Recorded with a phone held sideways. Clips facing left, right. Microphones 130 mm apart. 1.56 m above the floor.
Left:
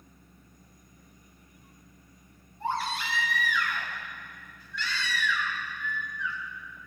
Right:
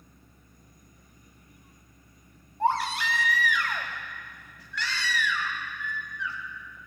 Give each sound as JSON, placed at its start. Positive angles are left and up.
{"t": 2.6, "sound": "a baby crying", "side_deg": -75, "distance_m": 2.5}